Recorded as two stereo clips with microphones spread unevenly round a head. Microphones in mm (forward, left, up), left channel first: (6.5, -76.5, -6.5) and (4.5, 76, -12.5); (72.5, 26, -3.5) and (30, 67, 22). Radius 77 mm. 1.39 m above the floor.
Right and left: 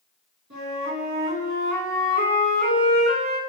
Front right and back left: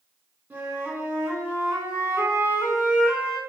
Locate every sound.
0.5 s a flute: 80° left, 4 m